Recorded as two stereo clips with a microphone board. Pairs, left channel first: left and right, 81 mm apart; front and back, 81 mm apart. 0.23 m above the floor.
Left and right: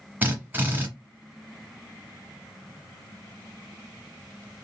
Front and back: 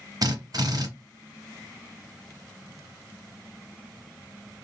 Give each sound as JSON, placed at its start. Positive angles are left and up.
{"t": 0.2, "sound": "a drill", "azimuth_deg": -155, "distance_m": 1.1}